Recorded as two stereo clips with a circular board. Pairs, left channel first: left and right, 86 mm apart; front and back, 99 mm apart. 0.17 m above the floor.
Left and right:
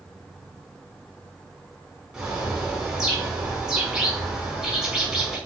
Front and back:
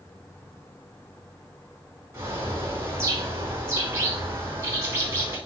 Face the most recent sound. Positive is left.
turn(degrees=-160)